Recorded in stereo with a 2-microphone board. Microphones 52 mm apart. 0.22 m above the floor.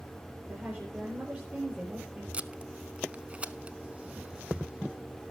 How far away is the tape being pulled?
About 0.6 m.